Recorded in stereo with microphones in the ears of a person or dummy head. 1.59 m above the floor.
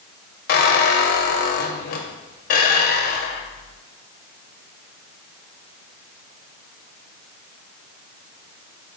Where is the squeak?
45° left (ahead or behind), 0.7 m.